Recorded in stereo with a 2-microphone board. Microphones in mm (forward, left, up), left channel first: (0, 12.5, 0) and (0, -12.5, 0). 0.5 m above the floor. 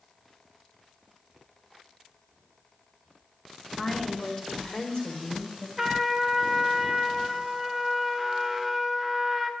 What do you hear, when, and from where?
3.8 s a woman speaking: 25° left (ahead or behind), 1.6 m; by 5.7 s 50° left (ahead or behind), 2 m
5.8 s a trumpet: 5° right (ahead or behind), 1.0 m